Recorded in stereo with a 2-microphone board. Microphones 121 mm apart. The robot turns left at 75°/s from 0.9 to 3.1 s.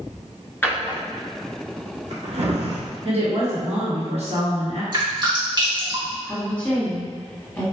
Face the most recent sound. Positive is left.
turn(degrees=15)  # may be behind; listen again after turning